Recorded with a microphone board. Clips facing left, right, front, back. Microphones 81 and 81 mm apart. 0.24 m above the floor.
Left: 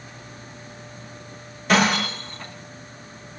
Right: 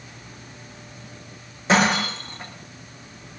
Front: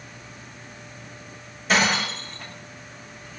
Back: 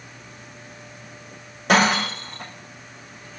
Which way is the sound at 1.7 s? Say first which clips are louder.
Even, back 4 dB; 155° right.